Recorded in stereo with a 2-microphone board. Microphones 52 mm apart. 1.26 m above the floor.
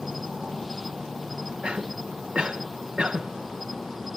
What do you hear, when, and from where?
0.0 s an insect: centre (ahead or behind)
1.6 s a cough: 20° right (ahead or behind)